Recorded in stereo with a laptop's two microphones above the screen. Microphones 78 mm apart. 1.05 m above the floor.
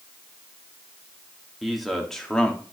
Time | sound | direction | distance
1.6 | a man speaking | centre (ahead or behind) | 2 m